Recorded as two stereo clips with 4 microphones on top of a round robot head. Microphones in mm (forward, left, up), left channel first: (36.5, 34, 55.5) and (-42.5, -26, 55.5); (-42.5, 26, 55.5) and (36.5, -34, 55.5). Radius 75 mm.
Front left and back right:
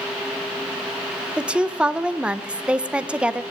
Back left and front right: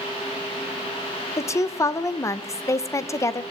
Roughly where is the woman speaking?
Behind left.